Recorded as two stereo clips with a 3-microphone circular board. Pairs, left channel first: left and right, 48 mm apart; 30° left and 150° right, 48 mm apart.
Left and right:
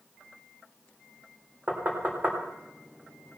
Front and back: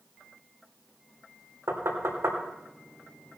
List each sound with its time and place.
1.7 s knocking: 140° right, 3.5 m